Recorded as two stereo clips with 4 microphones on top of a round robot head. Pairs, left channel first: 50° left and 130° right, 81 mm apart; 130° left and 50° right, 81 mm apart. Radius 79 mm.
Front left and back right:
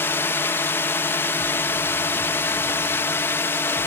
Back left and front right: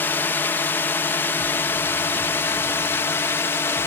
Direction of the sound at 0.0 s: 85° left.